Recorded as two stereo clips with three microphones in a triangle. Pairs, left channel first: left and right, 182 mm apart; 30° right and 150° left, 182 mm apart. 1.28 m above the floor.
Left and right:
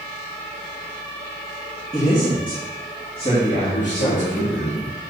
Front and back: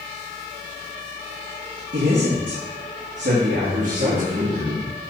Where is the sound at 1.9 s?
160° left, 2.0 m; by 4.5 s 145° left, 3 m.